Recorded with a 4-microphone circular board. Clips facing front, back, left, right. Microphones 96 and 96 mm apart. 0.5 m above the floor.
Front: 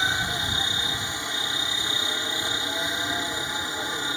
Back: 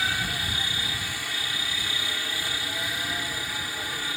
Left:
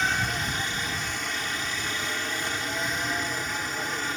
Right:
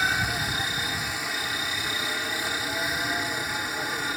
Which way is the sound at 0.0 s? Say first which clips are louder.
Front 2 dB, even; 15° right.